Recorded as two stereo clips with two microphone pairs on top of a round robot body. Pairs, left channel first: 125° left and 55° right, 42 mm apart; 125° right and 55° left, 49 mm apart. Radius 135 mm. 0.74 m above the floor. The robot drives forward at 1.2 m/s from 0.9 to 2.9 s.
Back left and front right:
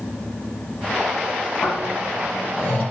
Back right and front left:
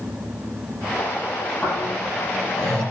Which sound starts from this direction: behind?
Snoring, at 1.6 s.